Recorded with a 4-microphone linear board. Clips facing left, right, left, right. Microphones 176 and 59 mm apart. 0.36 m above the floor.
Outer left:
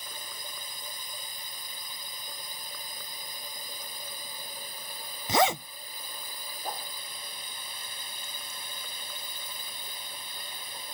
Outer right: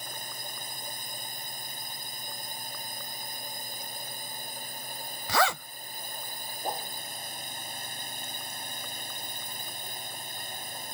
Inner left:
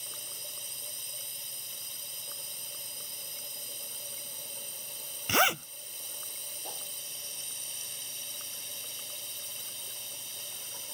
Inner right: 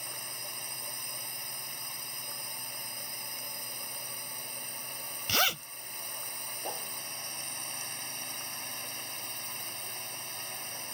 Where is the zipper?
20° left (ahead or behind).